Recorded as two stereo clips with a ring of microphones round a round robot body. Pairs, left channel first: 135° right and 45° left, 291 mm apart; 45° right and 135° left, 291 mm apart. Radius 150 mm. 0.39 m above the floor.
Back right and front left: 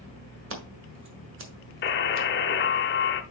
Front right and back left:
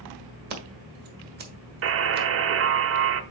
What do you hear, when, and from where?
0.5 s scissors: 85° left, 1.7 m
1.8 s a buzzer: 175° left, 0.8 m